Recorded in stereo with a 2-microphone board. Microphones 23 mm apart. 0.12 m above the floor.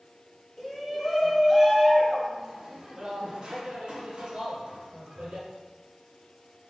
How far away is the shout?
About 1.5 m.